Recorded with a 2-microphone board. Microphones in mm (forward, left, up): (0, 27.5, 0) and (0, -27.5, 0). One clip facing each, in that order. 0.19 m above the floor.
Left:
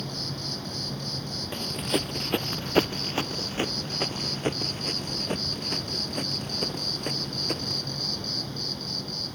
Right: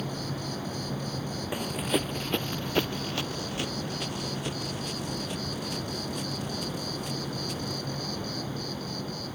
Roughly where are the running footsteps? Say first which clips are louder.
Even; centre.